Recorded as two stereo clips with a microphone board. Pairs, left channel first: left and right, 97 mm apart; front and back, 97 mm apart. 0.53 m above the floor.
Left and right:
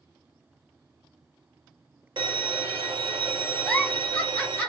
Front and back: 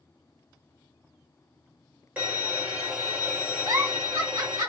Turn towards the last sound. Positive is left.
turn(degrees=165)